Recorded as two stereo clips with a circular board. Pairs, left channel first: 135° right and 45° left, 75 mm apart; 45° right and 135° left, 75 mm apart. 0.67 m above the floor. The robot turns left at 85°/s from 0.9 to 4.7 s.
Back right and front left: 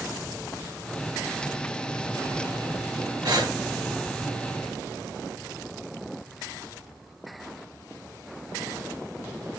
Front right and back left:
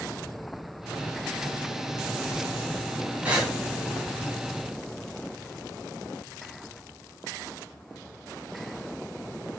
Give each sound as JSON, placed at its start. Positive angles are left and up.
{"t": 3.2, "sound": "breathing", "azimuth_deg": 70, "distance_m": 1.1}